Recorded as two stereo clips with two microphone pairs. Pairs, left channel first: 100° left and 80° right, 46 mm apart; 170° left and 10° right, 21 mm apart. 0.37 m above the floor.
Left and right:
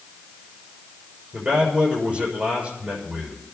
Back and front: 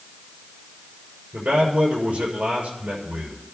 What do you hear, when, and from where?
1.3 s a man speaking: 20° right, 6.5 m